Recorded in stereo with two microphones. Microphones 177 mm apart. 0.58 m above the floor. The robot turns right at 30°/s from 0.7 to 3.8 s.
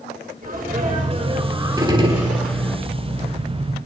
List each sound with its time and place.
0.4 s a sneeze: 45° right, 6 m; by 2.8 s 20° left, 6 m
1.8 s a gunshot: 20° right (ahead or behind), 2.5 m; by 2.4 s 35° right (ahead or behind), 2.5 m